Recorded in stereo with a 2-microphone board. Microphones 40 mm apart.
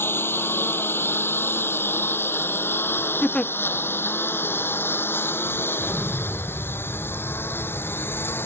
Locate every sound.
0.0 s a lawn mower: 80° left; by 8.5 s 75° left (ahead or behind)
3.2 s a giggle: 30° left (ahead or behind)
5.8 s an explosion: 15° left (ahead or behind)